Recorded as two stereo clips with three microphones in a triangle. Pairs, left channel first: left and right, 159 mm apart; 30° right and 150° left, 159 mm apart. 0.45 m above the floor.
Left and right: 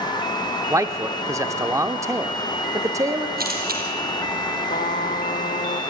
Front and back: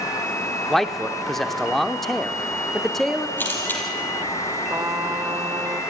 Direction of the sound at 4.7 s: 85° left.